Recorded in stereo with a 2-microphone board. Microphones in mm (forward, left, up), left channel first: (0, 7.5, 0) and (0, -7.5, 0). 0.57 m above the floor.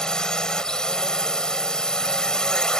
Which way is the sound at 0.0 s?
50° left (ahead or behind).